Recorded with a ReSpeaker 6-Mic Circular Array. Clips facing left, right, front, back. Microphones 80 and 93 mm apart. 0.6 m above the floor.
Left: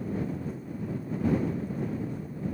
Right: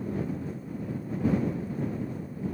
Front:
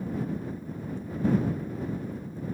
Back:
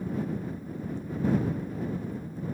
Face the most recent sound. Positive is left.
No sound to turn to.